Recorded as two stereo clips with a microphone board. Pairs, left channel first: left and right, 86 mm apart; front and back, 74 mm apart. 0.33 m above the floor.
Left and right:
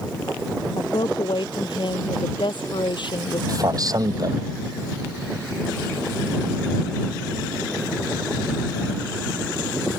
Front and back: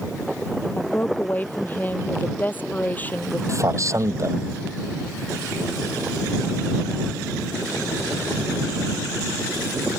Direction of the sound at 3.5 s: 135° right.